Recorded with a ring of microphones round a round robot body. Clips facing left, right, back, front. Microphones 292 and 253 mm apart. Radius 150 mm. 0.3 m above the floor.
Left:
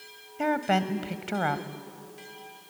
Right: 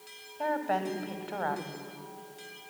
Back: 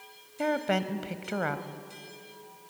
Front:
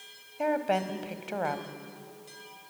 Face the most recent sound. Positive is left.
turn(degrees=115)